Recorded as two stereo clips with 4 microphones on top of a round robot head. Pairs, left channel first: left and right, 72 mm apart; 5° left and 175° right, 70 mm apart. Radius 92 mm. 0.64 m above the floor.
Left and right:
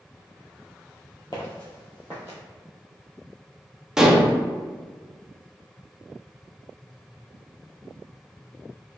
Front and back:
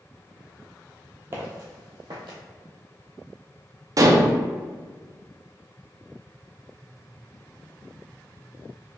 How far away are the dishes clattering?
About 0.7 m.